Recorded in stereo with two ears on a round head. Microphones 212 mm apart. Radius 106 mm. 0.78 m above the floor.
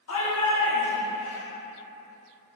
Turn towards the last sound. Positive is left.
turn(degrees=60)  # may be behind; listen again after turning